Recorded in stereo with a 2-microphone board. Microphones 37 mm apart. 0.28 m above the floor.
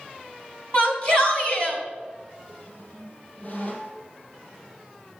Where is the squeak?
35° left (ahead or behind), 4.5 m.